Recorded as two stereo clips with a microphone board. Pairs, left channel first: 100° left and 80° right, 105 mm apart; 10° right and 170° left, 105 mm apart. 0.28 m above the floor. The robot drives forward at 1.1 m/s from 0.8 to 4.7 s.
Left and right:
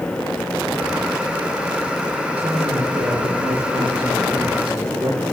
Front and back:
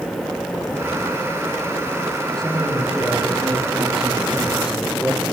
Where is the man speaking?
90° right, 8 m; by 5.2 s 110° right, 8.5 m.